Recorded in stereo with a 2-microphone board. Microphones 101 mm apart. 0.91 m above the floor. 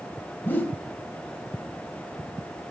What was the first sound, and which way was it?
A whoosh, 20° left (ahead or behind).